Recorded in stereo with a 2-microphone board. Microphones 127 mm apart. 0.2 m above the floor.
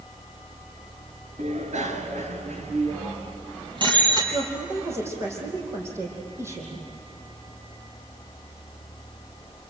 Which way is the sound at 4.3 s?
20° right (ahead or behind).